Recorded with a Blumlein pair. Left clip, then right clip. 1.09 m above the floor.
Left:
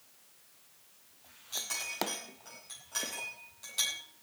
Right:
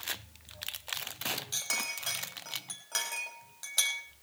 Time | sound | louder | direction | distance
1.5 | a clink | left 3 dB | 65° right | 5 m